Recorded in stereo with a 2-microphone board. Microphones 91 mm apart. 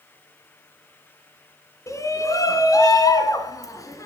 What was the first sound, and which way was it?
A shout, 35° left (ahead or behind).